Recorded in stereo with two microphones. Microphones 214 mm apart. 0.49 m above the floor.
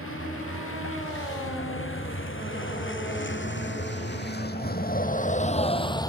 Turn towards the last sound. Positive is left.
turn(degrees=15)  # may be behind; listen again after turning